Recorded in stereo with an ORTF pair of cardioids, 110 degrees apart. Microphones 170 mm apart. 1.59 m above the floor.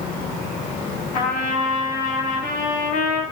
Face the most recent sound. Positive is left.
turn(degrees=50)